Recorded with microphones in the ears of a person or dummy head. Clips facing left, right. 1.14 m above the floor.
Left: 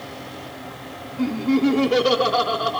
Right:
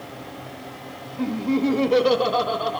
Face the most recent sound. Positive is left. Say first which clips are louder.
# left 3 dB
turn(degrees=0)  # may be behind; listen again after turning